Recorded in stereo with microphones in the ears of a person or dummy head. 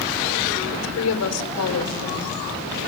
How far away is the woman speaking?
About 5 m.